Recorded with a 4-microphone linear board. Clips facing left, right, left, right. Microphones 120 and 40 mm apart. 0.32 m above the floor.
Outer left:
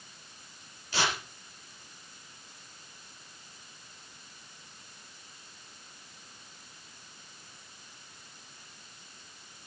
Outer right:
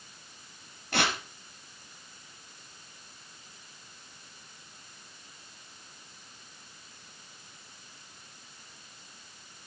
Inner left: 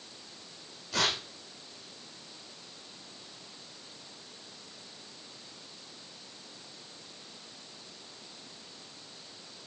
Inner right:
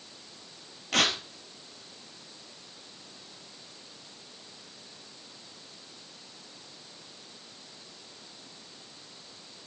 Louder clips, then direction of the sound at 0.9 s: Outer right 2 dB, inner right 4 dB; 60° right (ahead or behind).